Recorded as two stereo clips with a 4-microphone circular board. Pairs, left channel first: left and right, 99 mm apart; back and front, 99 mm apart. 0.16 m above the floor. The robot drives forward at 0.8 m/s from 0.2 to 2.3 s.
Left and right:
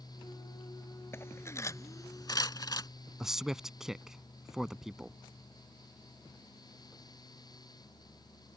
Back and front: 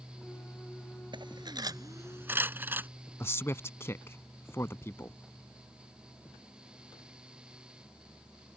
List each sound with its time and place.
1.1 s cutlery clinking: 25° left; by 2.9 s 60° left
3.2 s a man speaking: 170° right